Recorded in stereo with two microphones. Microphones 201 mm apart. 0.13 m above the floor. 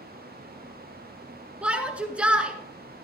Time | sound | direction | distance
1.6 | a shout | 5° right (ahead or behind) | 1.4 m